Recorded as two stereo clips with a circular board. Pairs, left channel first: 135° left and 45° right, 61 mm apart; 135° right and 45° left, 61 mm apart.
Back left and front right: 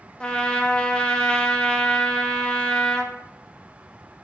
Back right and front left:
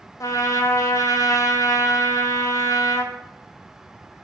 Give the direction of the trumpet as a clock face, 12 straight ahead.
5 o'clock.